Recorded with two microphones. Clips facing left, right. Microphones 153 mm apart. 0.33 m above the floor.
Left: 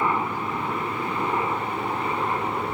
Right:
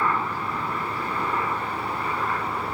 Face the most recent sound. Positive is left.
turn(degrees=25)  # may be behind; listen again after turning